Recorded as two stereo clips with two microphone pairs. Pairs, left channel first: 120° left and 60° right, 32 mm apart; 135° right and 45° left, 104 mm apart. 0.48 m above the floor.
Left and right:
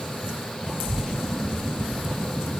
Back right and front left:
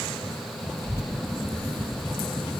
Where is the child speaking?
95° right, 0.8 m; by 2.5 s 175° right, 2 m.